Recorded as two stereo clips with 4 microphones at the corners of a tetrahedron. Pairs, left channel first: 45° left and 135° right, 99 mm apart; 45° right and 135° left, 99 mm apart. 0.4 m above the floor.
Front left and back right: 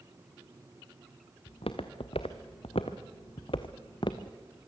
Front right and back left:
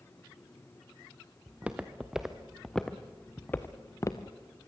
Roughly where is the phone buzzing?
No phone buzzing in this recording.